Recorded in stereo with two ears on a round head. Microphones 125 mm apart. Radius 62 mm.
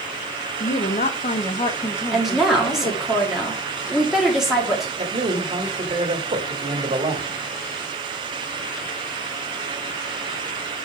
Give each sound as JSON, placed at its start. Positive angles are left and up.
{"t": 0.6, "sound": "a woman speaking", "side_deg": 55, "distance_m": 1.3}
{"t": 2.1, "sound": "a woman speaking", "side_deg": -5, "distance_m": 2.5}
{"t": 5.0, "sound": "a man speaking", "side_deg": -45, "distance_m": 1.7}